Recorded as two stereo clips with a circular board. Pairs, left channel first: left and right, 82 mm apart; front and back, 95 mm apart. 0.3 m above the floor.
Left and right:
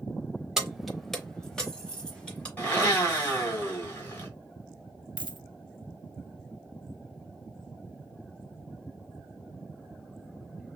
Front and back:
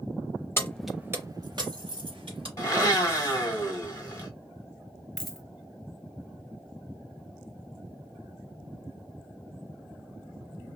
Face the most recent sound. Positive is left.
turn(degrees=-90)